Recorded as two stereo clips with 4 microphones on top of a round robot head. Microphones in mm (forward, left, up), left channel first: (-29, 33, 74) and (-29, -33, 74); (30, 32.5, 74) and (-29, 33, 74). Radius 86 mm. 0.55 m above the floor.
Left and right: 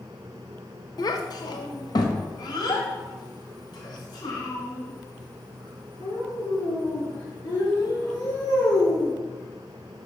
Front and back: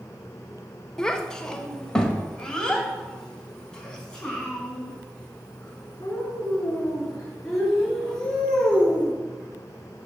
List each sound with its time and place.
1.0 s a child speaking: 80° left, 1.0 m; by 9.1 s 75° left, 6.5 m